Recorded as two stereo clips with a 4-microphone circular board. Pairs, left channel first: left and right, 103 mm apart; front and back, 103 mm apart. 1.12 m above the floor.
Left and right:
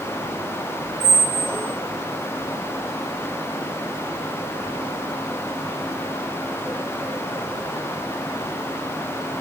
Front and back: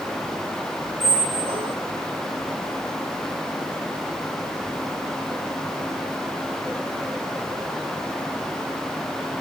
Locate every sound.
1.0 s a squeak: 155° right, 2 m